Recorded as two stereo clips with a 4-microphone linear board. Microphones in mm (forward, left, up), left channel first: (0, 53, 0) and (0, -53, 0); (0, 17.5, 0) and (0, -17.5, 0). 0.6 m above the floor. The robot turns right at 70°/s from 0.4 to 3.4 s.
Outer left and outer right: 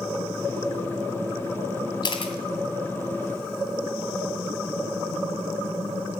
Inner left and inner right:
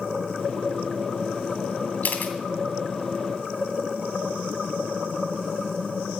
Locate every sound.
2.0 s a camera shutter: 45° left (ahead or behind), 1.9 m; by 2.3 s 65° left (ahead or behind), 1.9 m